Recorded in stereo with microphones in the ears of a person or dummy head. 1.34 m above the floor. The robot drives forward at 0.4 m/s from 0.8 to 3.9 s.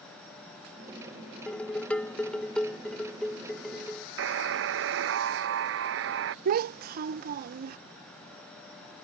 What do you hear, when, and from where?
1.5 s dishes clattering: 5° left (ahead or behind)
4.2 s a buzzer: 65° right (ahead or behind)
6.5 s a child speaking: 50° right (ahead or behind)